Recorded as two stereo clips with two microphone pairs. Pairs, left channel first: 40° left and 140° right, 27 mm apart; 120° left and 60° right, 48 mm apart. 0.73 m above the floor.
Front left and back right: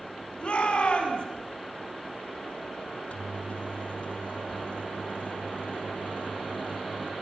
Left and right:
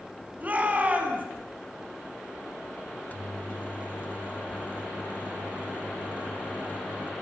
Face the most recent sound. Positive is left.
turn(degrees=65)